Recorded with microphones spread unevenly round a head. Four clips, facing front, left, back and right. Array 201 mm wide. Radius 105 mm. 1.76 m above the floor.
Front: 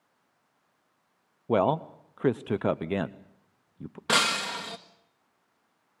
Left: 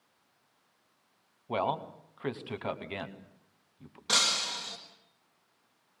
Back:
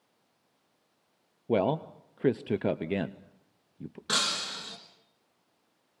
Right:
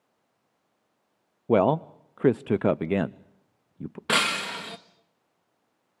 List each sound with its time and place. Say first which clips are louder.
1.5 s a man speaking: right 10 dB, front 3 dB; 90° right, 0.7 m
4.1 s breaking glass: right 7 dB, front 7 dB; 65° right, 1.5 m